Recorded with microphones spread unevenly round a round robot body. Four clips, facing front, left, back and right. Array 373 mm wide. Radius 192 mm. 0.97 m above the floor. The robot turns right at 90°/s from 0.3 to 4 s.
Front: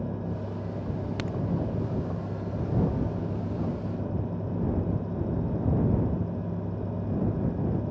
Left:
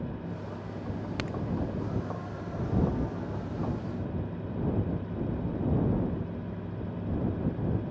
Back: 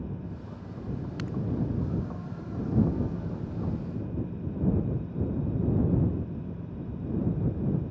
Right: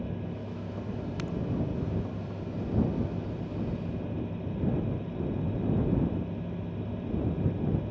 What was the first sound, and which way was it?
A crack, 35° left.